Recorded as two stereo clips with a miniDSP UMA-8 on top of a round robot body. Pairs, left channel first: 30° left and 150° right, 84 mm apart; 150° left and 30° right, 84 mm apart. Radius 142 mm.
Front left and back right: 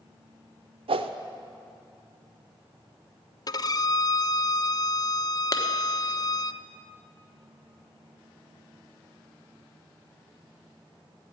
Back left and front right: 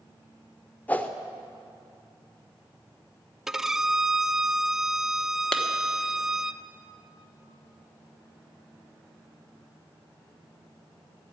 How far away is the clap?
About 1.3 m.